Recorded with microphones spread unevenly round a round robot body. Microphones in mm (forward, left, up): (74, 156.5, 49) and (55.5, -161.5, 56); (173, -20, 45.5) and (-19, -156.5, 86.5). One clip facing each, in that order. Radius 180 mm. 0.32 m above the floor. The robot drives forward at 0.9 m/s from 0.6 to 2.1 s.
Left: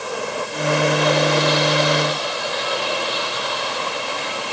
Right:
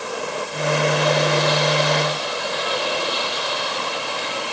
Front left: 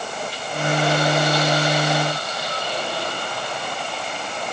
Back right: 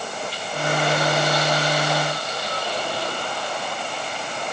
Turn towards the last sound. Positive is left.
No sound to turn to.